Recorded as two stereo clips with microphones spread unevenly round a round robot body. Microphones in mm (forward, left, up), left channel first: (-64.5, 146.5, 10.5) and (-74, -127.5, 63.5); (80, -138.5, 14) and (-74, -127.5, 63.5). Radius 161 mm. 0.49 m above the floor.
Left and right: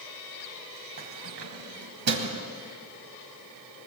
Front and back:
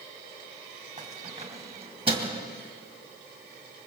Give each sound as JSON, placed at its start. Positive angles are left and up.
{"t": 1.0, "sound": "keys jangling", "azimuth_deg": -140, "distance_m": 2.5}